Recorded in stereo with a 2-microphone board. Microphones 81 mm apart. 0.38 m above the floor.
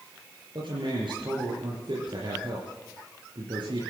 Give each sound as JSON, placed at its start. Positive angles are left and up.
{"t": 0.6, "sound": "a man speaking", "side_deg": -75, "distance_m": 6.0}